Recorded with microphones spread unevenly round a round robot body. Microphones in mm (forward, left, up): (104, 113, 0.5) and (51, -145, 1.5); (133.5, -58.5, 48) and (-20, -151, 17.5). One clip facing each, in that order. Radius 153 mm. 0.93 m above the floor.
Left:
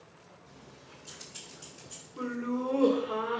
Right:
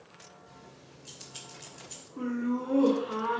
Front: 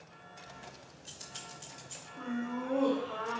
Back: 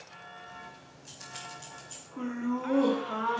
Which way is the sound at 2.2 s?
175° right.